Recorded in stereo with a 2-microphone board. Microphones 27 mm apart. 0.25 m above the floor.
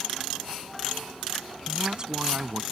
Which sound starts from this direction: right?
A man speaking, at 1.7 s.